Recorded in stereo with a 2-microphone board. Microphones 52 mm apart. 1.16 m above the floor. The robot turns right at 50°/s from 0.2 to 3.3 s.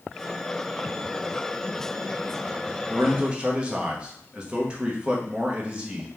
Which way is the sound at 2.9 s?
40° right (ahead or behind).